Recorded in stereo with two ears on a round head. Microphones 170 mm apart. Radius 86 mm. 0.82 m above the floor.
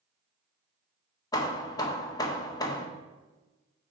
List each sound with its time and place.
1.3 s hammering: 20° left (ahead or behind), 0.7 m